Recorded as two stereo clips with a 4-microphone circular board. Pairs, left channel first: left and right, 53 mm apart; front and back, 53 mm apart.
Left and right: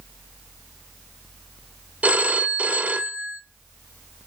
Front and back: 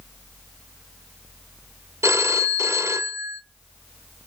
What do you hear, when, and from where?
2.0 s a phone ringing: 155° right, 0.8 m